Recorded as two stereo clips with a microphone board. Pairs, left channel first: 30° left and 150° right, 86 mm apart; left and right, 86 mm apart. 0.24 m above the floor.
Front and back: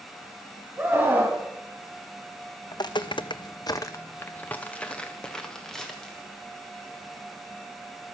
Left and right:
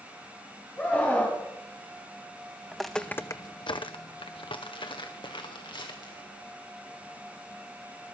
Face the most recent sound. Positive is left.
turn(degrees=115)